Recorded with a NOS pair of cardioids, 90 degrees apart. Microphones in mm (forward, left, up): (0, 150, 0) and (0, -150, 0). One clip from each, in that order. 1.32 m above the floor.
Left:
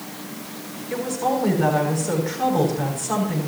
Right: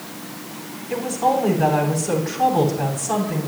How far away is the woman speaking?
About 8 m.